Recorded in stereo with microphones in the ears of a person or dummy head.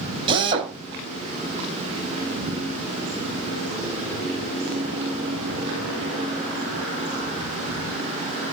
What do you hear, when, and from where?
0.3 s a drill: 30° right (ahead or behind), 5 m